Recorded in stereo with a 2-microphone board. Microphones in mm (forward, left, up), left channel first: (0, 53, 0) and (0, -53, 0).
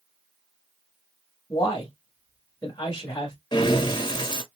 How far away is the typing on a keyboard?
No typing on a keyboard in this recording.